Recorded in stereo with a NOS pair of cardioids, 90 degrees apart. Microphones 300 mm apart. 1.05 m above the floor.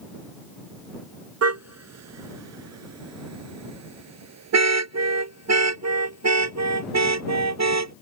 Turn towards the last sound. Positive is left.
turn(degrees=-60)